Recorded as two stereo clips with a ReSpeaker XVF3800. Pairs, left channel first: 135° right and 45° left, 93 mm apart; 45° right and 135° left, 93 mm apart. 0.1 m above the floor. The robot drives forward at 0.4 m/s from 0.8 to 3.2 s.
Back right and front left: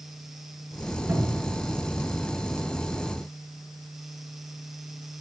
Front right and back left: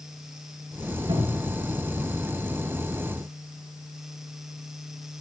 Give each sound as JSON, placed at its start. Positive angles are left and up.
{"t": 1.1, "sound": "a cupboard door", "azimuth_deg": 110, "distance_m": 6.5}